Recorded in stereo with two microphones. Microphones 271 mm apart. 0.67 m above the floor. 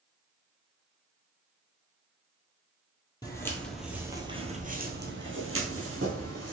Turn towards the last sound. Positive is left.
turn(degrees=-70)  # may be behind; listen again after turning